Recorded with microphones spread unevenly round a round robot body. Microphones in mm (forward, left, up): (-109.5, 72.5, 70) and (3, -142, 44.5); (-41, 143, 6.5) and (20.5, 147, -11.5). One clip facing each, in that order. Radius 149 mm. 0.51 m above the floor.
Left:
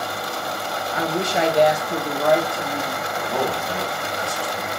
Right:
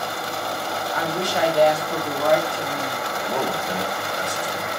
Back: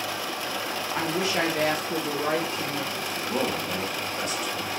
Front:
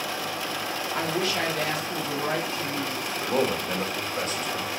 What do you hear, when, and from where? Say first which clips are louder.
0.9 s a woman speaking: left 3 dB, back 1 dB; 70° left, 0.8 m; by 3.1 s 150° right, 1.3 m
3.2 s a man speaking: left 1 dB, front 3 dB; straight ahead, 1.0 m